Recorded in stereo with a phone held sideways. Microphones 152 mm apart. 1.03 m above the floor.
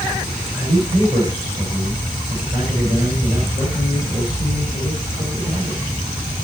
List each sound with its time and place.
0.5 s a man speaking: 50° right (ahead or behind), 5 m